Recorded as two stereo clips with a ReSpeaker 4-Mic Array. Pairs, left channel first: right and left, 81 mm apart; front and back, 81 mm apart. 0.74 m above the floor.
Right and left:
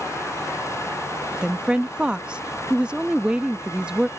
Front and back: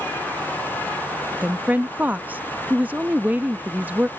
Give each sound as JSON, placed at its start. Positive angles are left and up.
{"t": 1.4, "sound": "a woman speaking", "azimuth_deg": 145}